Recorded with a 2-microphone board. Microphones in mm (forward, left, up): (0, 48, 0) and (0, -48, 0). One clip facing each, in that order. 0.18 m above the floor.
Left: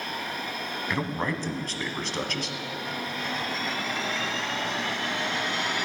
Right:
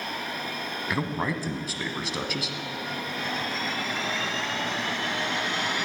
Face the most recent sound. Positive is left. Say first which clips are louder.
# right 1 dB
turn(degrees=-5)  # may be behind; listen again after turning